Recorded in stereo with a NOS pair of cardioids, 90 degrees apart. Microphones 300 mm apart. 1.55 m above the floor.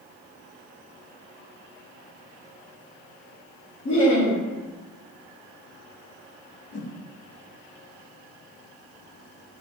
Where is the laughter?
45° left, 1.1 m.